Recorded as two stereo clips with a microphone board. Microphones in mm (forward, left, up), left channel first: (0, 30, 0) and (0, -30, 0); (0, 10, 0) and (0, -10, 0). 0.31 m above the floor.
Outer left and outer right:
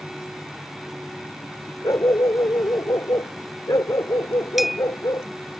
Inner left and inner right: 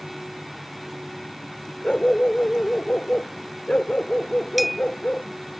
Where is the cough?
No cough in this recording.